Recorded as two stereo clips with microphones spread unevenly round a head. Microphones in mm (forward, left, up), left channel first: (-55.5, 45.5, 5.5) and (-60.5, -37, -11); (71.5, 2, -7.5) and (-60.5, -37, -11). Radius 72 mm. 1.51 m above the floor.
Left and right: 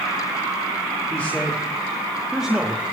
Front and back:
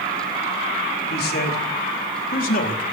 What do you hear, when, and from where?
1.1 s a man speaking: 5° left, 5 m; by 2.8 s 10° right, 3.5 m